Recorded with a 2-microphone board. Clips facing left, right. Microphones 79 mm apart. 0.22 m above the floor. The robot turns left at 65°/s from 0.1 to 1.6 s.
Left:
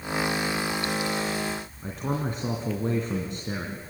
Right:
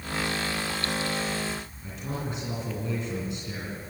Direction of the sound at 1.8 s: 50° left (ahead or behind).